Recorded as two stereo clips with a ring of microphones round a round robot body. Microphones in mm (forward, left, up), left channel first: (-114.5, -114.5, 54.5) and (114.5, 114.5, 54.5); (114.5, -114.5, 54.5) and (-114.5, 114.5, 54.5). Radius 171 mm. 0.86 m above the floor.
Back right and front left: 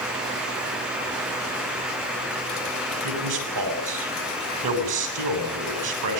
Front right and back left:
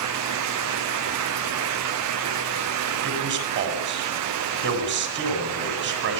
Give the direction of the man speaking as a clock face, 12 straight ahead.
9 o'clock.